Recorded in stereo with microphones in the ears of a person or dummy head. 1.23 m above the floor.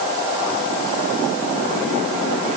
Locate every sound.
Only background noise.